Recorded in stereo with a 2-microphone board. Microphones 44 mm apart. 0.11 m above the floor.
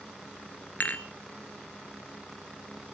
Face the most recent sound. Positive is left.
turn(degrees=40)  # may be behind; listen again after turning